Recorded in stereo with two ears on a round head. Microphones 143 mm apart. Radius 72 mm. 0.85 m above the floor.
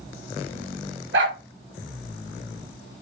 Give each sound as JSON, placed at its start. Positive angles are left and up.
{"t": 1.1, "sound": "a dog barking", "side_deg": -75, "distance_m": 4.5}